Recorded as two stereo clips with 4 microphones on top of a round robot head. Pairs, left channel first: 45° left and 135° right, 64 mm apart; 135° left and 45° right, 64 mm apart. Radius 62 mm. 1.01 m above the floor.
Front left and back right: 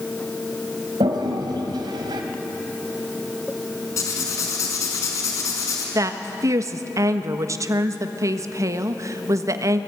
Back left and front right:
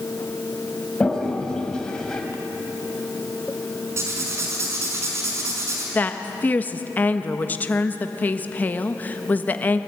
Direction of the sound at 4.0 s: 5° left.